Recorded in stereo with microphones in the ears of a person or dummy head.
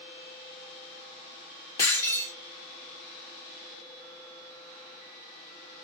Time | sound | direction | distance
1.8 | breaking glass | 20° left (ahead or behind) | 1.4 m